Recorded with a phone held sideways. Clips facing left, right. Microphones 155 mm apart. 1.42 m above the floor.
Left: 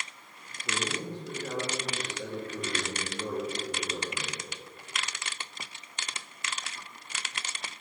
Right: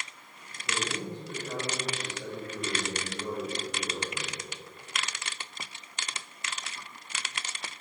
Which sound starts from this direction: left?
A man speaking, at 0.7 s.